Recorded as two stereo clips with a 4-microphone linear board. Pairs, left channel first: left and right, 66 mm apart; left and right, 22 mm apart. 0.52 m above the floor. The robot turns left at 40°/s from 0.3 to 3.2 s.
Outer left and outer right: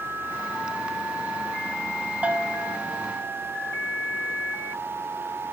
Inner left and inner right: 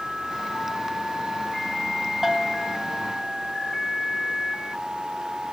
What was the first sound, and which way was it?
A bell, 20° right (ahead or behind).